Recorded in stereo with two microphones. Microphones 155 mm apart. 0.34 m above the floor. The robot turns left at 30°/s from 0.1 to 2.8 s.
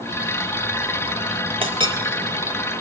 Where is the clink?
35° right (ahead or behind), 0.8 m; by 1.9 s 40° right (ahead or behind), 0.8 m.